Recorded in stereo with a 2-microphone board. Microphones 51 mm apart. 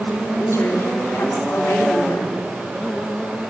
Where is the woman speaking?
65° left (ahead or behind), 3.5 m.